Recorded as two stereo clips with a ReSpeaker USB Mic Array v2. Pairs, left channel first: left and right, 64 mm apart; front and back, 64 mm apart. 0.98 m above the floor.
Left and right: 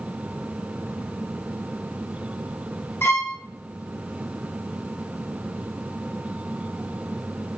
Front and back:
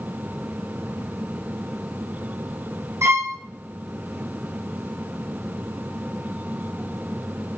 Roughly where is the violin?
Behind left.